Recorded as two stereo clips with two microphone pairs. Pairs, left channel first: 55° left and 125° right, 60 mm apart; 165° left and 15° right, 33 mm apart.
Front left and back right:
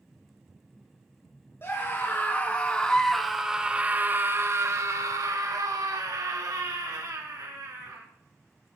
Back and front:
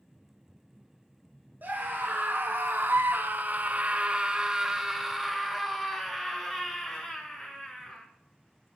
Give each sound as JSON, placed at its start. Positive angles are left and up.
{"t": 1.6, "sound": "a scream", "azimuth_deg": 5, "distance_m": 1.3}